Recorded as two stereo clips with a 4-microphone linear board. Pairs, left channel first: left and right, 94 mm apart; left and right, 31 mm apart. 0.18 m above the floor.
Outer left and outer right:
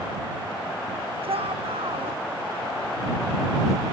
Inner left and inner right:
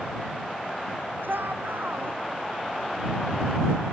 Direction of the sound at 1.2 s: 85° right.